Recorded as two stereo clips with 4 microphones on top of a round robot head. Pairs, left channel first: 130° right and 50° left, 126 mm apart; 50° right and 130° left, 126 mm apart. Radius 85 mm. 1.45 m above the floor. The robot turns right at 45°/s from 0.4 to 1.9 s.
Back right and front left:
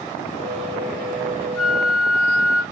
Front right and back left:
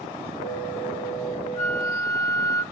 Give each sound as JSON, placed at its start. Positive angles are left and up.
{"t": 1.6, "sound": "a flute", "azimuth_deg": -110, "distance_m": 0.7}